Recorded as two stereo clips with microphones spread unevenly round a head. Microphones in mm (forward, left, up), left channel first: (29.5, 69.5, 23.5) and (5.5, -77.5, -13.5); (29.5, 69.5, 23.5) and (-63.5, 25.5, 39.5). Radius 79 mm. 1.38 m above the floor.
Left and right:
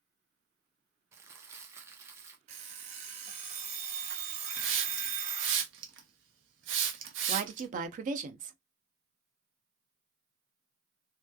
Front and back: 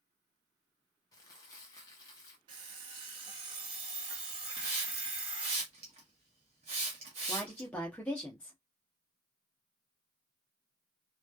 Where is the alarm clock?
150° right, 0.7 m.